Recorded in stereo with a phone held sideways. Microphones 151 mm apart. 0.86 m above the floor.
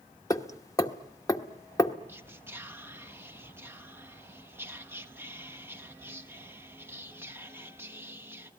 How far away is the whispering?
About 1.3 m.